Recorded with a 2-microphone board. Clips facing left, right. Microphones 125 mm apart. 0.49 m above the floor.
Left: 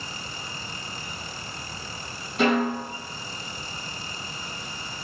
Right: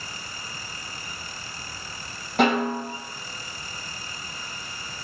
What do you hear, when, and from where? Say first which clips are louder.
2.4 s a snare drum: right 1 dB; 75° right (ahead or behind), 3.5 m